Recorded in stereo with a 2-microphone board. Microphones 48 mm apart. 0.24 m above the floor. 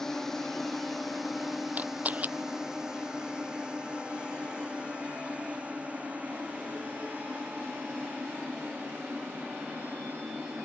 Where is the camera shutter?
35° right (ahead or behind).